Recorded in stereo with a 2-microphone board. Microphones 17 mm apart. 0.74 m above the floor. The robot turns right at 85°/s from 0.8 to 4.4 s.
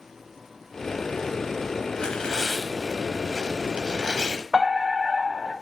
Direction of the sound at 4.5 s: 35° right (ahead or behind).